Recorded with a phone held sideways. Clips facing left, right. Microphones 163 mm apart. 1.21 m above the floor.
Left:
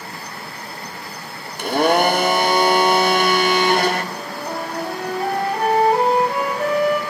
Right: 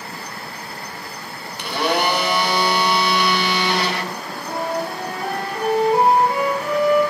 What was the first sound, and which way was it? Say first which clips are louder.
A blender: left 5 dB; 50° left (ahead or behind).